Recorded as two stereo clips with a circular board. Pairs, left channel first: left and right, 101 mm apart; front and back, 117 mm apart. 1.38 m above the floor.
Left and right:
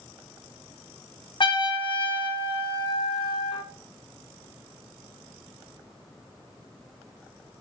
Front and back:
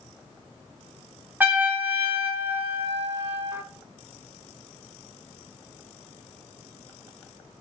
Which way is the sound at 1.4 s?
110° left.